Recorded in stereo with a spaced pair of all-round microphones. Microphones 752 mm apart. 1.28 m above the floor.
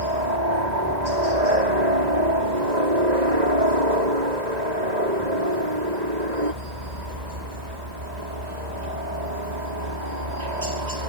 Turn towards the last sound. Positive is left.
turn(degrees=-65)  # may be behind; listen again after turning